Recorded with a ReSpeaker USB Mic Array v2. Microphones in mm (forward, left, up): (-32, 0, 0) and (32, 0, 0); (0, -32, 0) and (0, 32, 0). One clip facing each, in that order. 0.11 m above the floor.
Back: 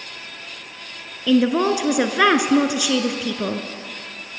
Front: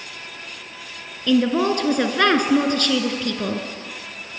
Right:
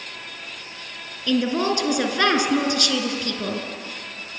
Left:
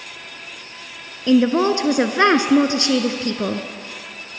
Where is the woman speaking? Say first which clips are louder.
Back 1 dB, left 6 dB; 110° left, 1.4 m.